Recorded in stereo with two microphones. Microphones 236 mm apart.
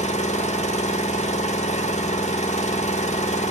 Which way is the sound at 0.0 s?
30° left (ahead or behind).